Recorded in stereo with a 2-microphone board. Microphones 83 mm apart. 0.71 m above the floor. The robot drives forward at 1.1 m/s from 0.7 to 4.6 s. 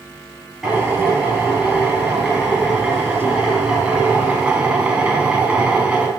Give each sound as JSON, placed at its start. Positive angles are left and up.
{"t": 0.6, "sound": "a drill", "side_deg": -5, "distance_m": 7.5}